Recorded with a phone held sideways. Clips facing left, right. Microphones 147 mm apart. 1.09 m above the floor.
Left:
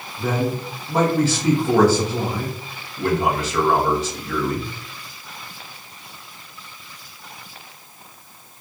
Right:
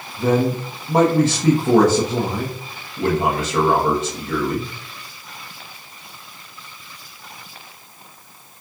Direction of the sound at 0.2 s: 45° right (ahead or behind).